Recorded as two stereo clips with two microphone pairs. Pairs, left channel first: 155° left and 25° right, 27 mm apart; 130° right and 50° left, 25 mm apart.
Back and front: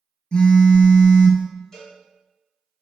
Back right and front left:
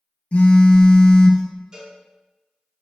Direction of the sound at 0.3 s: 150° right.